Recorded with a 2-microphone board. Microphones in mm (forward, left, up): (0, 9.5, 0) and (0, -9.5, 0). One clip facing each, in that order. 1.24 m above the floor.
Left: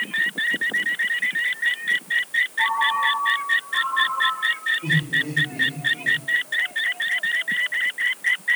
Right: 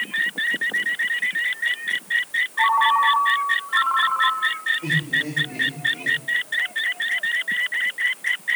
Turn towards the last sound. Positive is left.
turn(degrees=-85)